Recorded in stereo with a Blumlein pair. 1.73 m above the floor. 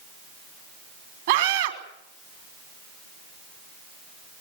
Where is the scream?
60° right, 3 m.